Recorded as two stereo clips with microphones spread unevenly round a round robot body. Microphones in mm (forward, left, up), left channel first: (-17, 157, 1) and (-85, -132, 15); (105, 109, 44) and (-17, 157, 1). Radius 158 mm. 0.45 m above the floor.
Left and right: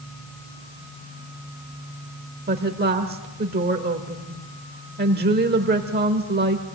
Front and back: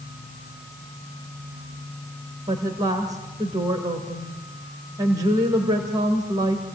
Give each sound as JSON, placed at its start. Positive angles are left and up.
{"t": 2.5, "sound": "a woman speaking", "azimuth_deg": -155, "distance_m": 1.7}